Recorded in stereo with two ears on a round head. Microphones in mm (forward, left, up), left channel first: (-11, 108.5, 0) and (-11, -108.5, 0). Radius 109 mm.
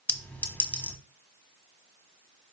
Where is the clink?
5° left (ahead or behind), 1.1 m.